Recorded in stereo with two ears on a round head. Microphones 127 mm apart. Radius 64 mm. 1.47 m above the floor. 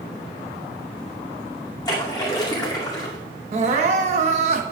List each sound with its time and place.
1.9 s a splash: 30° left (ahead or behind), 2.5 m
3.5 s crying: 50° right (ahead or behind), 1.0 m